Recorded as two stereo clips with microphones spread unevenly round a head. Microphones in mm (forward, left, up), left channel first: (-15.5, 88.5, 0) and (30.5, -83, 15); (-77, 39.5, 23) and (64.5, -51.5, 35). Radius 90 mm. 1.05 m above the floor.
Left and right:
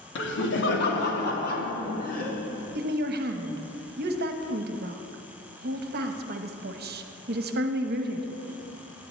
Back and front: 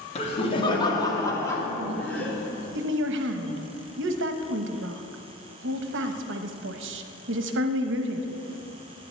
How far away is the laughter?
About 2 m.